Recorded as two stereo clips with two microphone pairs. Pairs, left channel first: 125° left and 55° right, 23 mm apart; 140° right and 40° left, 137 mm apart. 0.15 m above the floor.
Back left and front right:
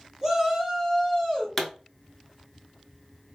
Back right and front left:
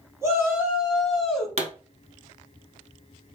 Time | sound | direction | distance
0.2 | a shout | 5° right | 1.4 m
1.6 | a pop | 50° left | 0.8 m